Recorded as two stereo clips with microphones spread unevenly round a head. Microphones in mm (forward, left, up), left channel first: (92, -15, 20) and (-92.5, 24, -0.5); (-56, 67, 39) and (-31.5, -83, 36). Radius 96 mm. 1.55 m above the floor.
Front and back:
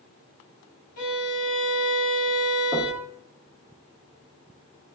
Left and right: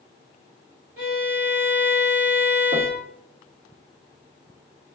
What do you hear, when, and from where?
1.0 s a violin: straight ahead, 1.3 m
2.7 s knocking: 120° right, 0.7 m